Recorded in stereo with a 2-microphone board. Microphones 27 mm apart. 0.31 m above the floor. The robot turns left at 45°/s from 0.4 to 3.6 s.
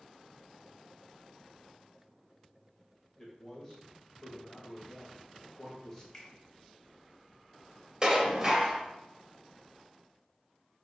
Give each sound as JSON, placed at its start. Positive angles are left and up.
{"t": 3.2, "sound": "a man speaking", "side_deg": 15, "distance_m": 0.9}
{"t": 6.1, "sound": "a finger snap", "side_deg": 15, "distance_m": 1.0}
{"t": 8.0, "sound": "dishes clattering", "side_deg": -25, "distance_m": 0.6}